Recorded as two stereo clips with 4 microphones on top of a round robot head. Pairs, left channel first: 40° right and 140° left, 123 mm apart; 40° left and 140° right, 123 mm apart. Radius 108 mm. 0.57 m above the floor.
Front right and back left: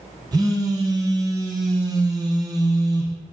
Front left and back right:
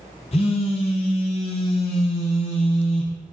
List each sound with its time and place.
0.3 s a phone buzzing: 80° left, 0.8 m